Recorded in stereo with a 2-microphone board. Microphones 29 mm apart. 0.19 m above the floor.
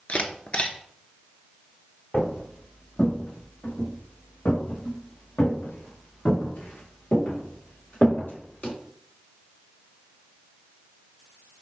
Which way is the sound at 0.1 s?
40° left (ahead or behind).